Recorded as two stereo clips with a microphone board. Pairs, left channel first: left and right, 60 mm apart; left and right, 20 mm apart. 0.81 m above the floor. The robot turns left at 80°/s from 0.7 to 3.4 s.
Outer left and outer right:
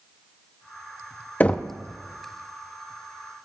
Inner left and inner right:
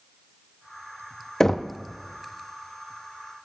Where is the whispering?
No whispering in this recording.